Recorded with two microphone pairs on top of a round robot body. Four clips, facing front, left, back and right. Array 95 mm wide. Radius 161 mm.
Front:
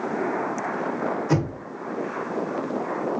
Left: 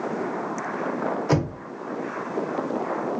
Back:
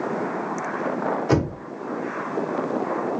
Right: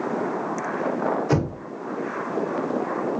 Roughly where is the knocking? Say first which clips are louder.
Even, back 4 dB; behind left.